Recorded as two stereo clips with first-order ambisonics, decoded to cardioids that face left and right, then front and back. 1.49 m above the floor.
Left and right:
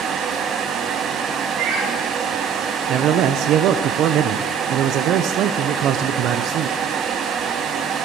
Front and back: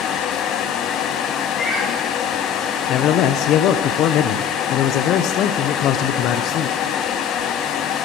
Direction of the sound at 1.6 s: 80° right.